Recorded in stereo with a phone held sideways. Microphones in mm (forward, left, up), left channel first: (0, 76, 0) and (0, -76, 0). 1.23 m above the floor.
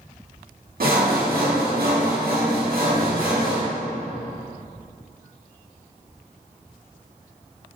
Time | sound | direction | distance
0.8 | sawing | 80° right | 1.7 m